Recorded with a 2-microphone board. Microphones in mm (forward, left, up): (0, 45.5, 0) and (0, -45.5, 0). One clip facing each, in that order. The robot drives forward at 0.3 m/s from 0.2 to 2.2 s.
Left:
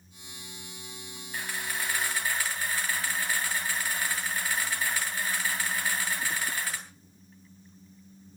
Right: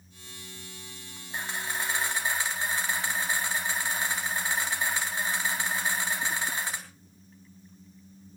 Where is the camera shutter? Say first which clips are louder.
Right 2 dB; 25° right (ahead or behind), 3.5 m.